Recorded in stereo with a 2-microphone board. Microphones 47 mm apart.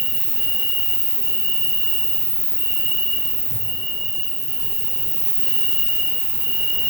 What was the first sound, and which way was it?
An insect, 65° right (ahead or behind).